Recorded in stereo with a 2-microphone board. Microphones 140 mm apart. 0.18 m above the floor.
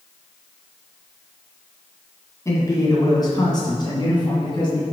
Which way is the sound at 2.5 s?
25° left (ahead or behind).